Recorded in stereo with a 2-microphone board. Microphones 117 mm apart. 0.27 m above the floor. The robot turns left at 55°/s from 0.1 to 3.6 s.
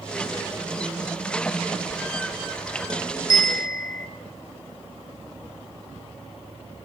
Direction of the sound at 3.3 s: 30° left (ahead or behind).